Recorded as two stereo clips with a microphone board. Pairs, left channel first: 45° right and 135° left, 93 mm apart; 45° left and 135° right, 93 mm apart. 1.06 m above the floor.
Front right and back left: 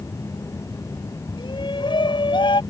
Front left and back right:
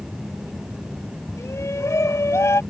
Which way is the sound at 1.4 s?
15° right.